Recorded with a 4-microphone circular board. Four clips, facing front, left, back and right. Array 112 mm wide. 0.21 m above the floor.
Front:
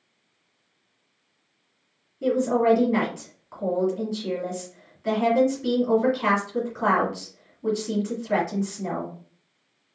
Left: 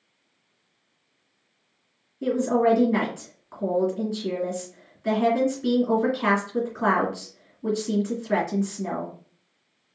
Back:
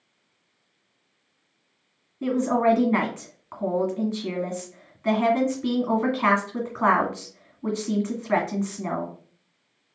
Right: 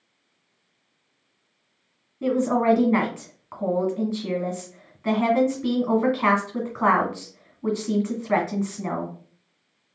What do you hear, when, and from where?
2.2 s a woman speaking: 130° right, 1.6 m